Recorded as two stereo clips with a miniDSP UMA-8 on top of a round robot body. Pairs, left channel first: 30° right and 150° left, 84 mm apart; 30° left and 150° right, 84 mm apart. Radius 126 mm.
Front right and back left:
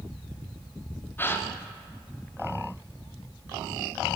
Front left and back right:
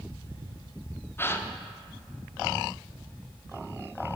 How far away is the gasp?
About 0.7 m.